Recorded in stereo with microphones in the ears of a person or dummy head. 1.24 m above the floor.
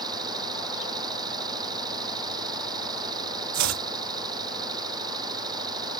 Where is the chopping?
70° right (ahead or behind).